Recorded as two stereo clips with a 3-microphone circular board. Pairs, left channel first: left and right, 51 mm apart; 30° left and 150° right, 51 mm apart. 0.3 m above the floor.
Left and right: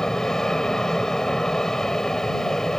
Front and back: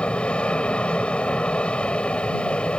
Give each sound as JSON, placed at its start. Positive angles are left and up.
{"t": 0.0, "sound": "an aircraft", "azimuth_deg": 30}